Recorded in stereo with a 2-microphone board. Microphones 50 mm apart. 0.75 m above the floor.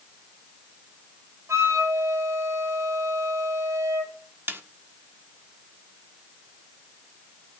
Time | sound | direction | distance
1.5 | a flute | 75° right (ahead or behind) | 4.5 m
4.5 | a snare drum | 45° right (ahead or behind) | 1.3 m